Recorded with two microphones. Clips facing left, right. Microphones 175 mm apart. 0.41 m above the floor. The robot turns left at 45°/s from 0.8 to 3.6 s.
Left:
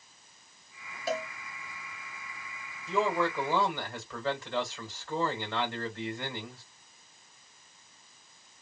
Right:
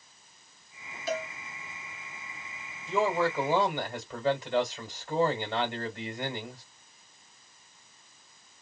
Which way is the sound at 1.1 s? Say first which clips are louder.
Even; 50° left (ahead or behind).